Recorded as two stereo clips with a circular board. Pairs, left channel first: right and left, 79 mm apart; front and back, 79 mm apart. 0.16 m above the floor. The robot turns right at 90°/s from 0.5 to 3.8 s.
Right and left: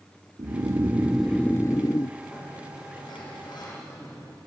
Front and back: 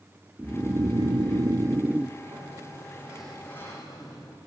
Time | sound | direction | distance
0.4 | snoring | 115° left | 0.8 m
2.2 | a sliding door | 175° left | 7 m